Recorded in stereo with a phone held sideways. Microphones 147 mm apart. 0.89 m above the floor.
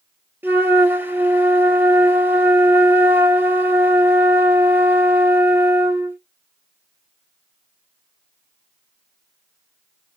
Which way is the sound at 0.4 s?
15° right (ahead or behind).